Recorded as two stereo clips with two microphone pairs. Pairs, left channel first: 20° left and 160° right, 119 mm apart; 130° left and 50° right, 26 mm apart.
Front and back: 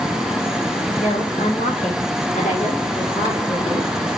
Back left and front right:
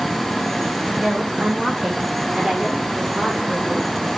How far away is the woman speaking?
About 4 m.